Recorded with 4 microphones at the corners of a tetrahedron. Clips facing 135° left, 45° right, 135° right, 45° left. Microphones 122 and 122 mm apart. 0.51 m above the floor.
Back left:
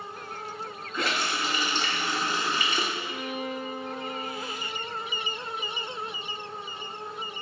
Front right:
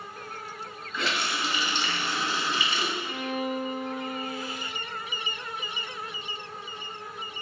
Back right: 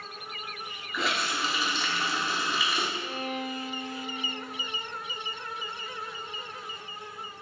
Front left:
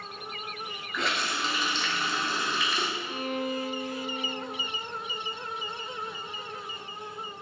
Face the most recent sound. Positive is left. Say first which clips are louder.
# front right 2 dB, front left 2 dB
turn(degrees=-35)